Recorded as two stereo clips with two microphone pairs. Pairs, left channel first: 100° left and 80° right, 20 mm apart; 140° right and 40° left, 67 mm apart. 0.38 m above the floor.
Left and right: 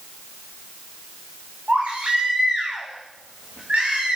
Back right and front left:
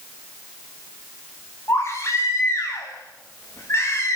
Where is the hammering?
I don't hear hammering.